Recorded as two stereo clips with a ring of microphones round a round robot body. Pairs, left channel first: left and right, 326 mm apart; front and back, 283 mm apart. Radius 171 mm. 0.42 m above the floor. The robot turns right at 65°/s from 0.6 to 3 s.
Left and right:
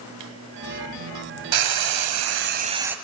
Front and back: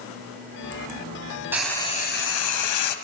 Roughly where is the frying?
Right.